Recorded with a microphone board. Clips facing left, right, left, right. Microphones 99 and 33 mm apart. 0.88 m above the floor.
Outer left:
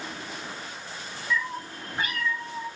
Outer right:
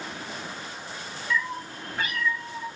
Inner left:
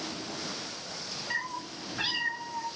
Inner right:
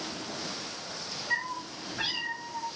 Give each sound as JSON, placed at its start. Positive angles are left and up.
{"t": 1.3, "sound": "a cat meowing", "side_deg": 5, "distance_m": 2.0}